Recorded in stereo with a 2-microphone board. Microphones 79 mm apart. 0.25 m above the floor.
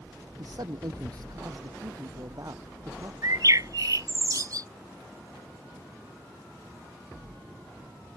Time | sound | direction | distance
0.4 | a man speaking | 60° right (ahead or behind) | ?
3.2 | a bird | 50° right (ahead or behind) | ?